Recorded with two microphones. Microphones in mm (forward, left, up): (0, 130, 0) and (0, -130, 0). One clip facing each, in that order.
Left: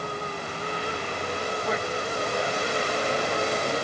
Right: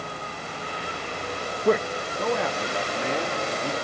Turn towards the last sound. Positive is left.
turn(degrees=-80)